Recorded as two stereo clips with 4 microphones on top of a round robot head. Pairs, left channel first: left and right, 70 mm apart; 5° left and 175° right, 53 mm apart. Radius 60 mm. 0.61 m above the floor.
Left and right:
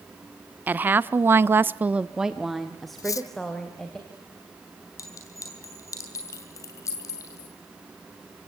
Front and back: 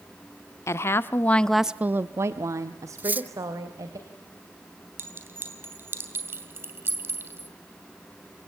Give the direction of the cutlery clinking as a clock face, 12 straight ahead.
8 o'clock.